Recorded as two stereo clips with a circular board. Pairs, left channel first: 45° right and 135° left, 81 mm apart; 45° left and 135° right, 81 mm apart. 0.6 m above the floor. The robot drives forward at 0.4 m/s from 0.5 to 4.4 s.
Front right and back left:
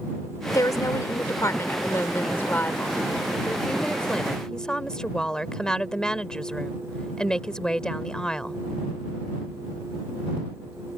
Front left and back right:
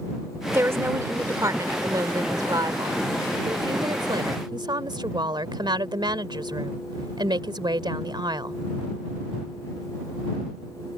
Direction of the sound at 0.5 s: 80° right.